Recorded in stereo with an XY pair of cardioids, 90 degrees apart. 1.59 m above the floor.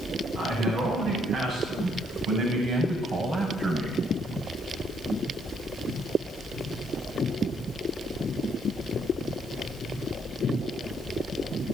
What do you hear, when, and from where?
0.3 s a man speaking: 70° right, 10 m; by 4.0 s 50° right, 7.5 m